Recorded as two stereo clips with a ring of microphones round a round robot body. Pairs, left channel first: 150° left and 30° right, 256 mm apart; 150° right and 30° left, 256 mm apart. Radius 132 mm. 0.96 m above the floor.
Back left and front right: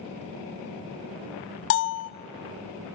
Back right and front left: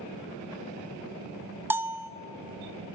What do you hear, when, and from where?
1.7 s a bell: 110° left, 0.7 m